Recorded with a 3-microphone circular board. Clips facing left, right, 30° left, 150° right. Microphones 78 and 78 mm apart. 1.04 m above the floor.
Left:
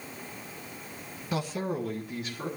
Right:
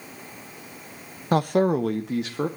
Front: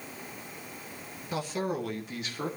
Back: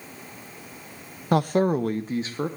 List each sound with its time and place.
1.3 s a man speaking: 125° right, 0.7 m; by 2.5 s 90° right, 1.6 m